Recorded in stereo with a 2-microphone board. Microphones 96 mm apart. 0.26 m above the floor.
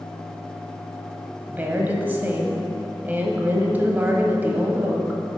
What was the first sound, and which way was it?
A woman speaking, 20° right (ahead or behind).